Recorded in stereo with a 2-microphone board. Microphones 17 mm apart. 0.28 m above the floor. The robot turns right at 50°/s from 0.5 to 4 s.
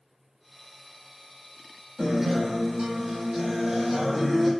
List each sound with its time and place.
2.0 s a guitar: 95° right, 0.9 m; by 4.5 s 10° left, 0.9 m